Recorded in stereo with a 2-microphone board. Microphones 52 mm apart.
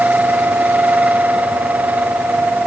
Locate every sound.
Only background noise.